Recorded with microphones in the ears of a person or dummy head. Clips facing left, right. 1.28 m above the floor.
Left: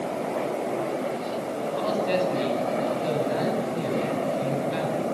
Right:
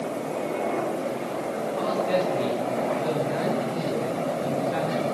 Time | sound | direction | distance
1.8 | a man speaking | 55° left (ahead or behind) | 8.5 m